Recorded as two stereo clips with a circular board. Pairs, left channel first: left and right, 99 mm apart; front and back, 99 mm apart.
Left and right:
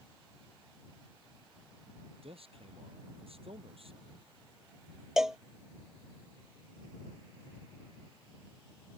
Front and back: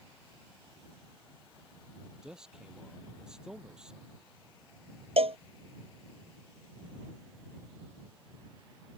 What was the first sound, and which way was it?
A man speaking, 100° right.